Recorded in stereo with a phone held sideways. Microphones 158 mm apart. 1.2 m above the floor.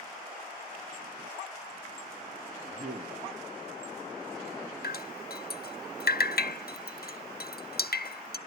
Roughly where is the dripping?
Left.